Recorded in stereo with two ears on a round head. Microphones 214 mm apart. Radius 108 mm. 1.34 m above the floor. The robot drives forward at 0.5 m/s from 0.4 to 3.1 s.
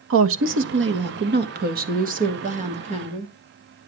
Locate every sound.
0.1 s a woman speaking: 55° right (ahead or behind), 1.3 m; by 3.3 s 30° right (ahead or behind), 2.5 m